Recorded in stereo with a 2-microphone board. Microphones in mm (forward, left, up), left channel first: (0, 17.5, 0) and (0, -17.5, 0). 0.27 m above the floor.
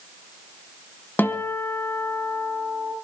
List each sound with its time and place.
1.2 s a guitar: 65° left (ahead or behind), 2.0 m